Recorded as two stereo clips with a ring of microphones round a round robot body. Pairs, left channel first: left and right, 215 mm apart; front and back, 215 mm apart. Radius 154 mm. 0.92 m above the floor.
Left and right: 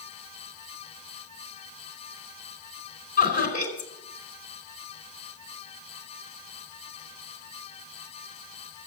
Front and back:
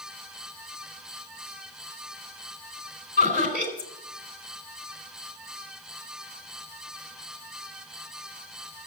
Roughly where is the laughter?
Ahead left.